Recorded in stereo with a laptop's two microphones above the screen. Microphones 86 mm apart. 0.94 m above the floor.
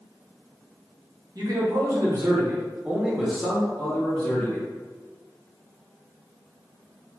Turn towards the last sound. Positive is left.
turn(degrees=40)  # may be behind; listen again after turning